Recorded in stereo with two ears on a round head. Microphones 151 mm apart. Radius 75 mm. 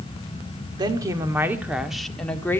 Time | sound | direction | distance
0.8 | a woman speaking | 25° right (ahead or behind) | 1.9 m